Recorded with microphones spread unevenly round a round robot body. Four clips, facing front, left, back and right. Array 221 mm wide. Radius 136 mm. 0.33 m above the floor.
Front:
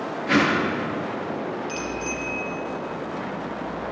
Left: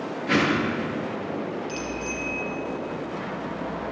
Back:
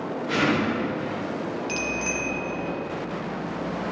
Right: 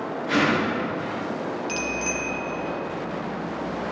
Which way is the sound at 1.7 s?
110° right.